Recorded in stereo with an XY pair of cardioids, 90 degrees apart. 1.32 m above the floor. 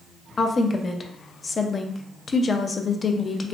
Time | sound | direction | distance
0.4 | a woman speaking | 40° left | 0.6 m